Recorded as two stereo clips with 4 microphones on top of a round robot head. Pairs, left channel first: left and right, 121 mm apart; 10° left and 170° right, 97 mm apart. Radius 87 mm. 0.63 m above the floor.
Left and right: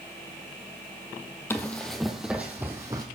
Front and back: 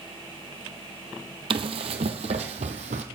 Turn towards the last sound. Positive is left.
turn(degrees=-160)